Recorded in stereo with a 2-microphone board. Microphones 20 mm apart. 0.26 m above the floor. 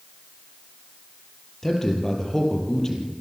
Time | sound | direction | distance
1.6 | a man speaking | 20° left (ahead or behind) | 5.5 m